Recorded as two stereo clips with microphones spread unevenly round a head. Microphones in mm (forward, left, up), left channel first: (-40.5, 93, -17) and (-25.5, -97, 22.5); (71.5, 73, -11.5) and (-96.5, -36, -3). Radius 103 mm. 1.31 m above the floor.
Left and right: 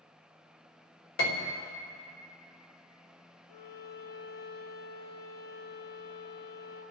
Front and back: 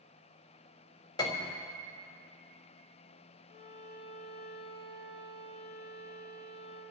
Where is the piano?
105° left, 2.5 m.